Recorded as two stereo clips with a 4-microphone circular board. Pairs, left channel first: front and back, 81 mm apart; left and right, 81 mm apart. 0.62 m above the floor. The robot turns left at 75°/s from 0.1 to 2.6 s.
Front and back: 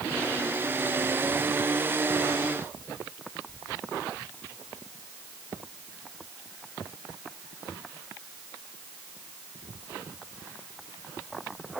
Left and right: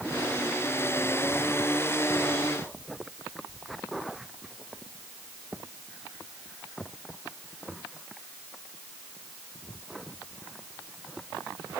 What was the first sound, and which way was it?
Only background noise.